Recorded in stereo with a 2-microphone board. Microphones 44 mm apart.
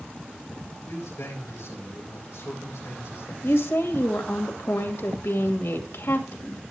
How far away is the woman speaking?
About 2 m.